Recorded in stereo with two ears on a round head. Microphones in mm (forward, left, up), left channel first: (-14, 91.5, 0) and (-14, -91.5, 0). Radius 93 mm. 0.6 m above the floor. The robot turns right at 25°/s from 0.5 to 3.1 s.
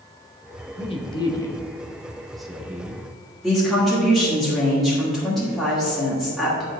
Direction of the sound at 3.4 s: Centre (ahead or behind).